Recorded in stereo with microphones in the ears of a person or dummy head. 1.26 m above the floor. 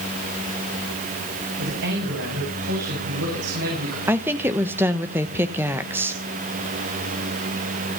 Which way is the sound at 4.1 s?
10° right (ahead or behind).